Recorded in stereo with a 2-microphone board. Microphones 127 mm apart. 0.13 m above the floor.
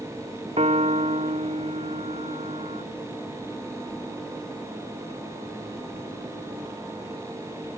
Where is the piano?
55° right (ahead or behind).